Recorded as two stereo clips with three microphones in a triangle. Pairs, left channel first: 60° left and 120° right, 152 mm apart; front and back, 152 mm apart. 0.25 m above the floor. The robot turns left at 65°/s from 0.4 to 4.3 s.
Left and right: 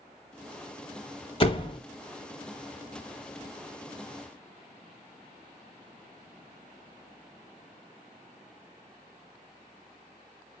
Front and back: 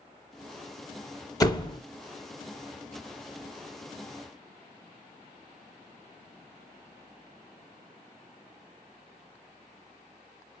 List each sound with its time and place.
1.4 s a door slam: 50° left, 0.8 m; by 1.8 s 20° left, 0.8 m